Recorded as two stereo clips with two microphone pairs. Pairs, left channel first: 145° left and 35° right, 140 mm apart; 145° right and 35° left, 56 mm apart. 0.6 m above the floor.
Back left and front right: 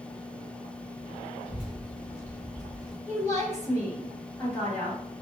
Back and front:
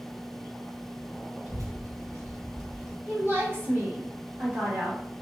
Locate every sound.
1.4 s a child speaking: 50° left, 1.7 m; by 3.0 s 20° left, 1.4 m
3.1 s a woman speaking: 75° left, 1.9 m